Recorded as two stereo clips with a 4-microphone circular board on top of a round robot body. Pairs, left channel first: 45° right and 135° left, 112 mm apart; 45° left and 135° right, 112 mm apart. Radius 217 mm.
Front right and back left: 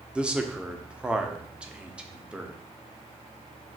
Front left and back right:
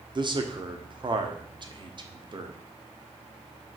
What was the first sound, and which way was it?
A man speaking, 150° right.